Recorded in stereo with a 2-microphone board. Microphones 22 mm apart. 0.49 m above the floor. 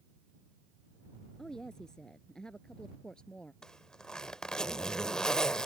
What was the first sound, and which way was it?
A woman speaking, 30° left (ahead or behind).